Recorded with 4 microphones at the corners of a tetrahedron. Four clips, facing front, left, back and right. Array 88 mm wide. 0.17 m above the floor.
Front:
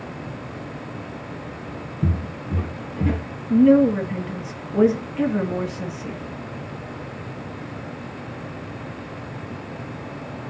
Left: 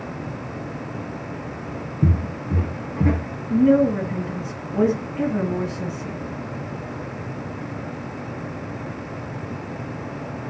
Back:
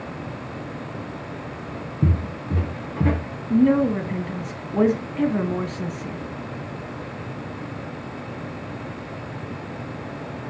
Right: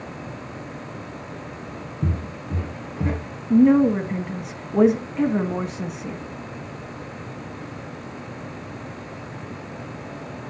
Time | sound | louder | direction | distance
2.0 | footsteps | left 6 dB, back 2 dB | 155° left | 2.5 m
3.5 | a woman speaking | right 1 dB, front 3 dB | 105° right | 1.1 m